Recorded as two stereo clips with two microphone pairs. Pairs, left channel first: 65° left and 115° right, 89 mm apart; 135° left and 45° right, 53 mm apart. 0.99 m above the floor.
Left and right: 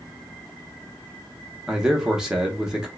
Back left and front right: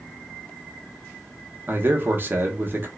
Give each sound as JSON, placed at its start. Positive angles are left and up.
{"t": 1.7, "sound": "a man speaking", "azimuth_deg": -35, "distance_m": 0.9}